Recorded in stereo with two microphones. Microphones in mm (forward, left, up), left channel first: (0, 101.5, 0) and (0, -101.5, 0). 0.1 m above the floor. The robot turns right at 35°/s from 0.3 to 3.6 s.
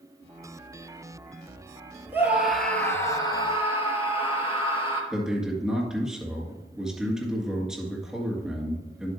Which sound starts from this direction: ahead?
A scream, at 2.1 s.